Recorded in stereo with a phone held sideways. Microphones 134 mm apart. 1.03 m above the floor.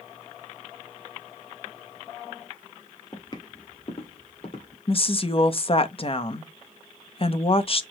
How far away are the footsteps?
About 1.3 m.